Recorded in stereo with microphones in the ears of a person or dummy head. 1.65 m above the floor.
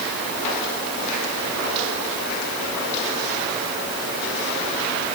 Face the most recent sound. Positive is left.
No sound to turn to.